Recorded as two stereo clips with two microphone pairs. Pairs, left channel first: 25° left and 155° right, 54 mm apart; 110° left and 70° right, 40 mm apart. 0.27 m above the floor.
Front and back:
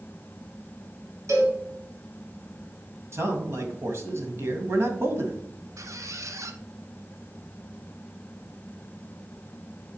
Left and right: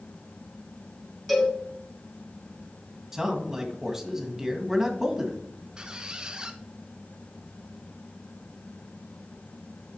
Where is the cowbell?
160° right, 2.5 m.